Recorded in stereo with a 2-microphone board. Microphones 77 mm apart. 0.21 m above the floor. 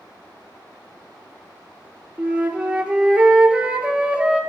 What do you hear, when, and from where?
2.2 s a flute: 15° right (ahead or behind), 0.9 m